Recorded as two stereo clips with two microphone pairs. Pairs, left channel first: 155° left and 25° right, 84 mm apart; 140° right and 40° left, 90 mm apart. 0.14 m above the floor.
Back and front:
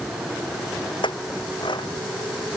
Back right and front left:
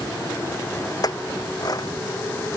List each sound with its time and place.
1.0 s a clink: 175° left